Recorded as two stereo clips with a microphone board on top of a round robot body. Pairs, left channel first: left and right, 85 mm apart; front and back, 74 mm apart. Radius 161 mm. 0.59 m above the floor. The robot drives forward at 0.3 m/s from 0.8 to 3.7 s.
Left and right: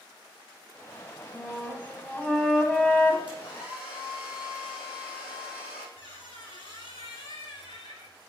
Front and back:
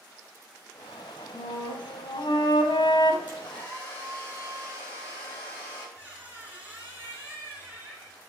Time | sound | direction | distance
1.3 | a flute | 10° left | 1.6 m
3.3 | a hair dryer | 70° left | 6 m
6.0 | a squeak | 110° left | 1.9 m